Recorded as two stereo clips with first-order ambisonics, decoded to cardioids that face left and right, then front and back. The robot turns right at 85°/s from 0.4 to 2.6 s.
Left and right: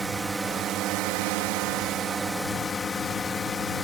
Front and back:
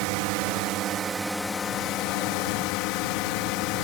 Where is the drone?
170° right; by 3.9 s 15° left.